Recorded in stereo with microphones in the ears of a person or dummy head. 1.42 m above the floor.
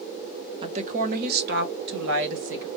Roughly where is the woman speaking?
Right.